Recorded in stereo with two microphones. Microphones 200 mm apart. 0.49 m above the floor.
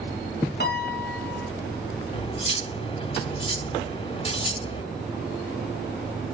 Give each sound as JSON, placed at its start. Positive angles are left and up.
{"t": 0.6, "sound": "a piano", "side_deg": 55, "distance_m": 2.5}
{"t": 2.1, "sound": "cutlery clinking", "side_deg": 30, "distance_m": 1.2}